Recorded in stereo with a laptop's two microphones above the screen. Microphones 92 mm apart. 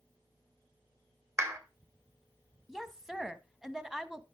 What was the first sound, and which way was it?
A clap, 30° right (ahead or behind).